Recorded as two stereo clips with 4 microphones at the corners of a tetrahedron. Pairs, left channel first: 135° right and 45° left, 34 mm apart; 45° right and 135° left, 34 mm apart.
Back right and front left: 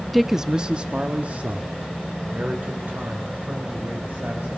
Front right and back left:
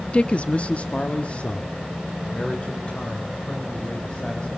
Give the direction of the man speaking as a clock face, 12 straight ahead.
2 o'clock.